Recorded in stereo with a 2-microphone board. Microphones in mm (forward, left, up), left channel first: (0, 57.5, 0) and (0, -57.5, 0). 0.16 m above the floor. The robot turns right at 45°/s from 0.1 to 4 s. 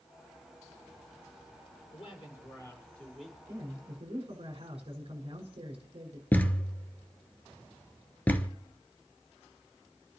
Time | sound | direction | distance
1.9 | a man speaking | 120° left | 4.5 m
3.5 | a man speaking | 25° right (ahead or behind) | 6.5 m
6.3 | a thud | 15° left (ahead or behind) | 1.0 m